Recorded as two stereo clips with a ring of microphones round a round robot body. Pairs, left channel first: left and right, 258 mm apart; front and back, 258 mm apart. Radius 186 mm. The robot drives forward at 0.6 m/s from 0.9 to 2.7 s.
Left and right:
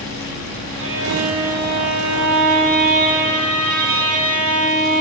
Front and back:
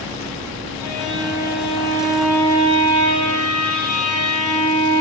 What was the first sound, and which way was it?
A violin, 55° right.